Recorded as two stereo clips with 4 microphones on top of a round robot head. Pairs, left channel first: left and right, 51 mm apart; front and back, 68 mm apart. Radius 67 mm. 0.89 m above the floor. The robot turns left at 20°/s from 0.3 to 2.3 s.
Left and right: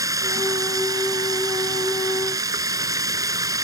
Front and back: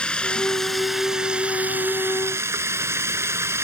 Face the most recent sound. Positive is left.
turn(degrees=-120)